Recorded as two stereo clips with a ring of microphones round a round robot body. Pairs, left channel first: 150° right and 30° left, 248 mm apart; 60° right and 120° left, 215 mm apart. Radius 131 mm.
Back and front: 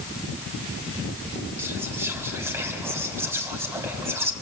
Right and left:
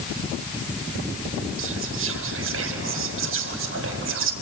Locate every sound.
1.6 s whispering: 110° left, 3.5 m